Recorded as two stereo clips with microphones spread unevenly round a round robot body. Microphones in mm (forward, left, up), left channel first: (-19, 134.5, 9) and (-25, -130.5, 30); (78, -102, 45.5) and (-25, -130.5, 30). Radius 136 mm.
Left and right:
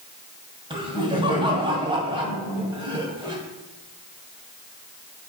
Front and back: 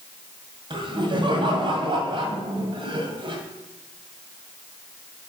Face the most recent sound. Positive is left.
turn(degrees=-160)